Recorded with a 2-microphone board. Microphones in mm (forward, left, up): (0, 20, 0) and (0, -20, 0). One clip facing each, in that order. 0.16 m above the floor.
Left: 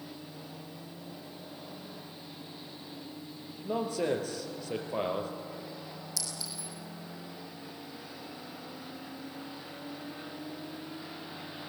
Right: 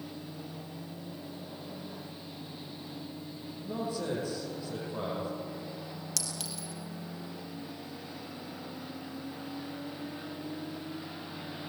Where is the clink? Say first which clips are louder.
Right 1 dB; 75° right (ahead or behind), 3 m.